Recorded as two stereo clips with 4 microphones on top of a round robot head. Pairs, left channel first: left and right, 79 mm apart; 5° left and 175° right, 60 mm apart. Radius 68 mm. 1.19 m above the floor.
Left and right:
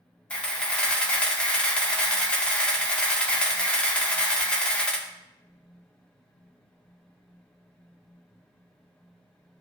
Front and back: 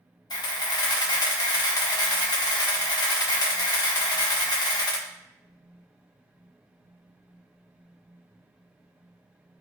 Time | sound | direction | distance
0.3 | a camera shutter | 15° left | 1.5 m